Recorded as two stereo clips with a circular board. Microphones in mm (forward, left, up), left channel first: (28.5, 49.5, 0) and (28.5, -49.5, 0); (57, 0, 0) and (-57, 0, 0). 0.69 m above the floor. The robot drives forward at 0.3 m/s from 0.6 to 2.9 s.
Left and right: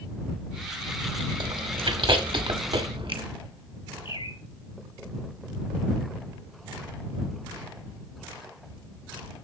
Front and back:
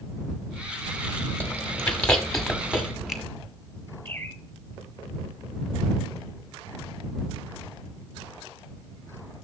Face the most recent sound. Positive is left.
turn(degrees=75)